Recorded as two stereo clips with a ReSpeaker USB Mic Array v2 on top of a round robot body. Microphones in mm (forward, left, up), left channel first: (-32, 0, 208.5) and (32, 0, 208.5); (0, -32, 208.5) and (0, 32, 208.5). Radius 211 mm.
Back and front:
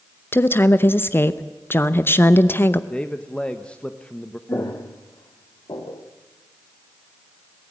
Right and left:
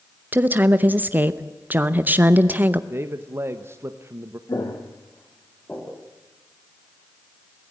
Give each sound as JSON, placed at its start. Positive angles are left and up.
{"t": 0.3, "sound": "a woman speaking", "azimuth_deg": 140, "distance_m": 1.0}
{"t": 2.9, "sound": "a man speaking", "azimuth_deg": 115, "distance_m": 1.4}
{"t": 4.5, "sound": "footsteps", "azimuth_deg": -130, "distance_m": 1.8}